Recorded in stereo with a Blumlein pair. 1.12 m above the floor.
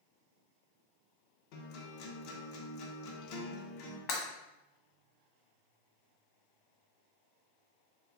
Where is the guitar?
45° left, 0.8 m.